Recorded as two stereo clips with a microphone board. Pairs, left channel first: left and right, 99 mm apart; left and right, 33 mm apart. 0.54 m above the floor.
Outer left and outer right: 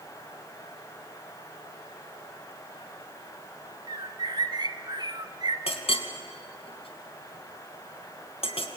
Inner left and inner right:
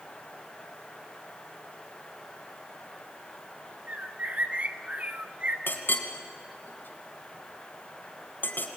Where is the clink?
80° left, 2.5 m.